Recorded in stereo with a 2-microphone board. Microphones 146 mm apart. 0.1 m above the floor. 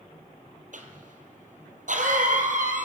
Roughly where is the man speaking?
I don't hear a man speaking.